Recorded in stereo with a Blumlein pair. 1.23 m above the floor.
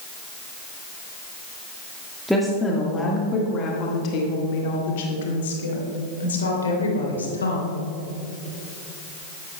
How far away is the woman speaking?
About 1.6 m.